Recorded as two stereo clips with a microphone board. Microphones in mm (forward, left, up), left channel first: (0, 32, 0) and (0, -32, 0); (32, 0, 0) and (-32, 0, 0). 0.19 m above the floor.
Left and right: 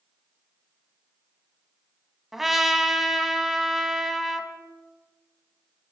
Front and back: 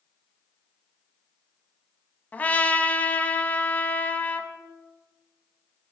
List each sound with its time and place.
2.3 s a trumpet: 10° right, 1.0 m